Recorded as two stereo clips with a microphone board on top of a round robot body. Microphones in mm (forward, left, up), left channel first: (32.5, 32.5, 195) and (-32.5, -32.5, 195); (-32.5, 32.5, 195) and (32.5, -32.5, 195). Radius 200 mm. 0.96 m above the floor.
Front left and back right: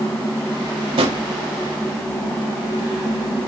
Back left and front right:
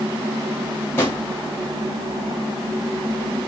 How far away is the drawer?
About 0.6 m.